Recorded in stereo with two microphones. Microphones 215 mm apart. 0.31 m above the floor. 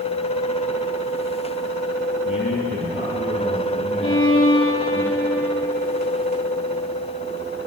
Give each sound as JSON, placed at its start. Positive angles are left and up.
{"t": 2.2, "sound": "a man speaking", "side_deg": 70, "distance_m": 8.5}
{"t": 4.0, "sound": "a violin", "side_deg": 80, "distance_m": 3.0}